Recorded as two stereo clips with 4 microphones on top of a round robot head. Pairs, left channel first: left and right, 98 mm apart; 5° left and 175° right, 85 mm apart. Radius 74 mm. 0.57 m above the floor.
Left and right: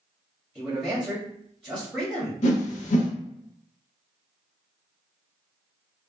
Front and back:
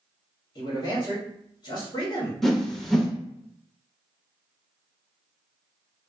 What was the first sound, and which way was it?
A man speaking, 5° right.